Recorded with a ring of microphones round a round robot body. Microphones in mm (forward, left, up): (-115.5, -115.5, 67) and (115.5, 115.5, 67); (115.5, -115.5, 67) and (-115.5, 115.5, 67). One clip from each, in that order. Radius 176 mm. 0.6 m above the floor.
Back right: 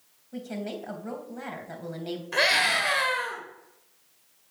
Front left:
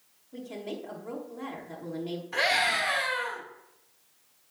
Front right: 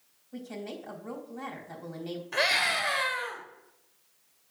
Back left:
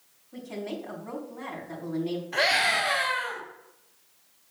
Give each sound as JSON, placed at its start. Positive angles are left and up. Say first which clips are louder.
{"t": 0.3, "sound": "a woman speaking", "louder": "back right 2 dB, back left 4 dB", "azimuth_deg": -105, "distance_m": 3.5}
{"t": 2.3, "sound": "a scream", "louder": "back right 3 dB, back left 2 dB", "azimuth_deg": -90, "distance_m": 2.5}